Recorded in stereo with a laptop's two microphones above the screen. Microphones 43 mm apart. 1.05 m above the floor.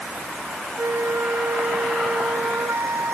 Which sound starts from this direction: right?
A flute, at 0.8 s.